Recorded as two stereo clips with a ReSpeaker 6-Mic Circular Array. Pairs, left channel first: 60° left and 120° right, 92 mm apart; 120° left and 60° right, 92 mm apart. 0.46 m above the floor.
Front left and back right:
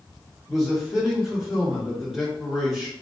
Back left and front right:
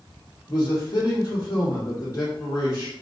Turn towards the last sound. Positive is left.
turn(degrees=155)